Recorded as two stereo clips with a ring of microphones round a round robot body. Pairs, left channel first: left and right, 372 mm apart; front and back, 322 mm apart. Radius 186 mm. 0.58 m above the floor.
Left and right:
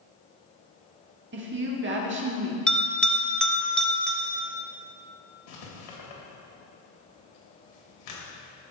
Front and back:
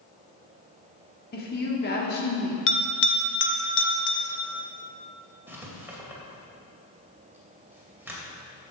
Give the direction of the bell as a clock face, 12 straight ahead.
12 o'clock.